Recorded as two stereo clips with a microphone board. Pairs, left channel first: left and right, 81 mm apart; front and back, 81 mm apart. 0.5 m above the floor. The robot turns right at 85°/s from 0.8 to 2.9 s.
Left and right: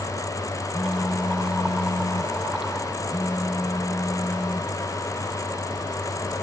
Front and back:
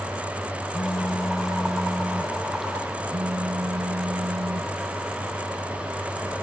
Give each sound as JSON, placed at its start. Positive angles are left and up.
{"t": 0.7, "sound": "a phone buzzing", "azimuth_deg": -5}